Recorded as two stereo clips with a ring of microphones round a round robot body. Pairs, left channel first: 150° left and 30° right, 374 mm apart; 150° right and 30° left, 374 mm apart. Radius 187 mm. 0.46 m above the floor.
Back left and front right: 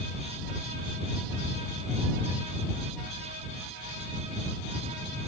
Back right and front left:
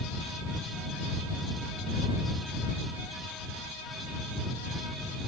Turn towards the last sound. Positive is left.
No sound to turn to.